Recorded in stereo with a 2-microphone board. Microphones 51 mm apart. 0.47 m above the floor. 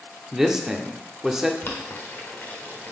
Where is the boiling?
40° left (ahead or behind), 1.2 m.